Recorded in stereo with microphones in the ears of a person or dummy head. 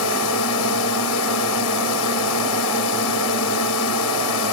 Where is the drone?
75° left (ahead or behind).